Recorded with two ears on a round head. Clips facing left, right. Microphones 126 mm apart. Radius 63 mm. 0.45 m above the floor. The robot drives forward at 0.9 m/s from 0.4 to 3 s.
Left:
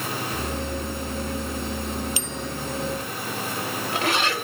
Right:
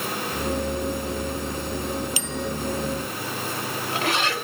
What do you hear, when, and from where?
2.2 s a bicycle bell: 65° right (ahead or behind)